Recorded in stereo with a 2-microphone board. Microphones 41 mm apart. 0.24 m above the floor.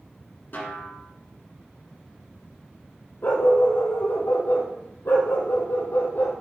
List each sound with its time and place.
0.5 s a snare drum: 50° left (ahead or behind), 1.4 m
3.2 s a dog barking: 70° left (ahead or behind), 1.9 m